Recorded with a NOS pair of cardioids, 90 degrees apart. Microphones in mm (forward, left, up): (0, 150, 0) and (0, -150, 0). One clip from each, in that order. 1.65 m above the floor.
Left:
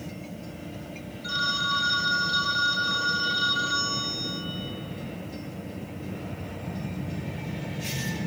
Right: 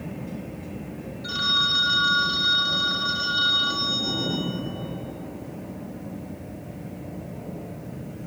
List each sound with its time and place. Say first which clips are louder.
1.2 s a phone ringing: right 4 dB; 10° right, 5 m